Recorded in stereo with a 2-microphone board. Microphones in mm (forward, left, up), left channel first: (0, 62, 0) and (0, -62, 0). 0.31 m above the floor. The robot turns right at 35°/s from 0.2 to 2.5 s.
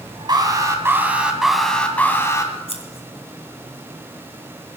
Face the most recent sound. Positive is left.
turn(degrees=55)  # may be behind; listen again after turning